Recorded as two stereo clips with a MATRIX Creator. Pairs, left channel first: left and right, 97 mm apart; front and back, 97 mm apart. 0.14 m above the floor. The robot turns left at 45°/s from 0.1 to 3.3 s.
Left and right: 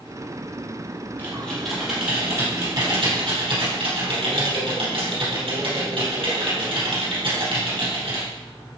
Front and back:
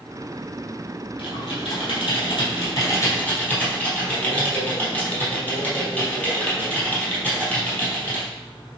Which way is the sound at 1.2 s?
20° left.